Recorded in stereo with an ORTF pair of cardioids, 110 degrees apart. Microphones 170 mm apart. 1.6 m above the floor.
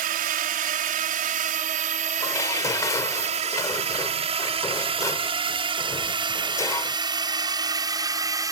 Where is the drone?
60° right; by 8.5 s 20° right.